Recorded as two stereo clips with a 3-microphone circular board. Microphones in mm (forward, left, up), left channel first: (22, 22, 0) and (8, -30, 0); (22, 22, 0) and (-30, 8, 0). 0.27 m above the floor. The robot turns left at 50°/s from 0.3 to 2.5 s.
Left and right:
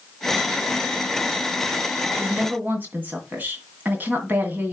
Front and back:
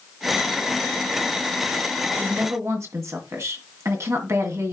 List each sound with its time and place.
2.2 s a woman speaking: 140° right, 2 m; by 4.7 s 155° right, 2 m